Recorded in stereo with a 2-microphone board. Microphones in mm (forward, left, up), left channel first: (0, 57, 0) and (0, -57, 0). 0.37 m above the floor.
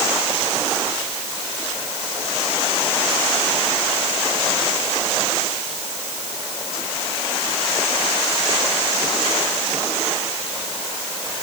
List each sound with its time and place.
Only background noise.